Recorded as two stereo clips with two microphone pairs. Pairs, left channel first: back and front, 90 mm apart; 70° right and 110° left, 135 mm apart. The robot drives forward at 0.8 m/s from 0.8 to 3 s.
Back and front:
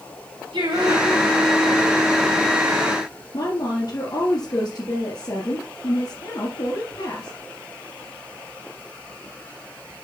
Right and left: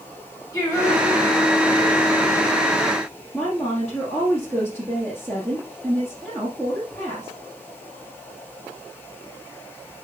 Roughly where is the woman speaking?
Behind.